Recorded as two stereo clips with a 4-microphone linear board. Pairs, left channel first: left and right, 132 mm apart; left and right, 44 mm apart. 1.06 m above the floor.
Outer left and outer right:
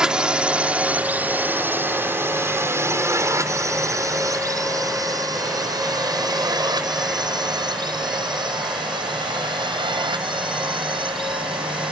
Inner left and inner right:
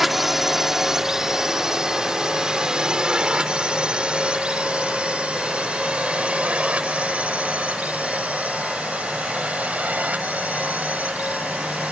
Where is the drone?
5° right (ahead or behind); by 11.9 s 40° right (ahead or behind).